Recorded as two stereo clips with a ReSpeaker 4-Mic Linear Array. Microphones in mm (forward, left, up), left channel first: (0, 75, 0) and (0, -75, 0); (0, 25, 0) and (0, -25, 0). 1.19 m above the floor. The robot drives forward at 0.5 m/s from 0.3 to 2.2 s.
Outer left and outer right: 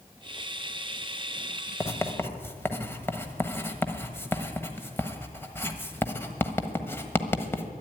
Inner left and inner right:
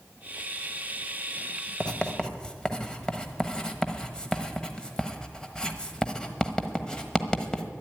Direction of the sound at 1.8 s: 15° left (ahead or behind).